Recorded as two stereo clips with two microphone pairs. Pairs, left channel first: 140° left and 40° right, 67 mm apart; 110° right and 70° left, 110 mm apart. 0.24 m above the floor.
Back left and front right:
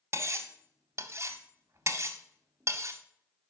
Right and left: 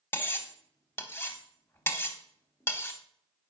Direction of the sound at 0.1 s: 50° right.